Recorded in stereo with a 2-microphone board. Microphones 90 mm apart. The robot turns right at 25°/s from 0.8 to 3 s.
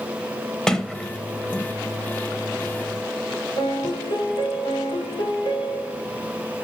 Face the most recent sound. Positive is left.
turn(degrees=75)  # may be behind; listen again after turning